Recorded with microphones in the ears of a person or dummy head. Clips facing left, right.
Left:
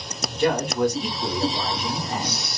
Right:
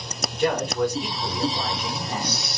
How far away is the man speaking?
About 1.2 m.